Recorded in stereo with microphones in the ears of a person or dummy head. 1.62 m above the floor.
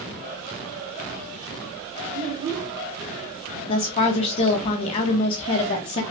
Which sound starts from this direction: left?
A woman speaking, at 3.7 s.